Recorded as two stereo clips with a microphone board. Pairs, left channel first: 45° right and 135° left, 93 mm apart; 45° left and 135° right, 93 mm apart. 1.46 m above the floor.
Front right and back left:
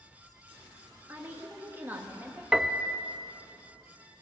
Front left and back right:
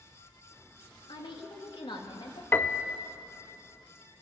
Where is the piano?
60° left, 0.7 m.